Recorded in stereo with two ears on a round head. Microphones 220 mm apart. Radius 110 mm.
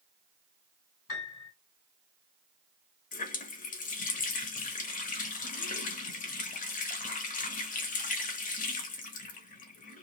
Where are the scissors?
No scissors in this recording.